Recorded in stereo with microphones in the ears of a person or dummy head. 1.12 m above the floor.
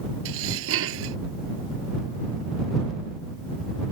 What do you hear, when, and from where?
0.2 s dishes clattering: 75° right (ahead or behind)